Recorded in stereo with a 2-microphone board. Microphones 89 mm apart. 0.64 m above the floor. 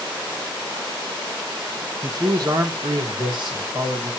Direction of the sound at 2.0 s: 35° right (ahead or behind).